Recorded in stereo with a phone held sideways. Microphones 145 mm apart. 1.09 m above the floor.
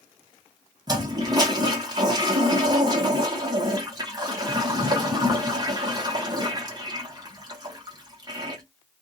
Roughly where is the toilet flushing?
Right.